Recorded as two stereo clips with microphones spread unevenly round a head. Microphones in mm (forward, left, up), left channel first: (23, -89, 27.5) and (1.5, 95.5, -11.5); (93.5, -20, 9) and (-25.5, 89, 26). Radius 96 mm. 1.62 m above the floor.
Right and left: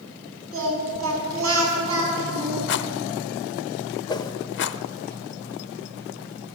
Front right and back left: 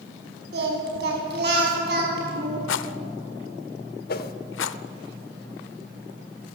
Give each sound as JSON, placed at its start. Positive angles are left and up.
{"t": 0.5, "sound": "singing", "azimuth_deg": 125, "distance_m": 6.0}
{"t": 2.7, "sound": "a rattle", "azimuth_deg": -55, "distance_m": 0.7}
{"t": 4.1, "sound": "a whoosh", "azimuth_deg": -35, "distance_m": 1.0}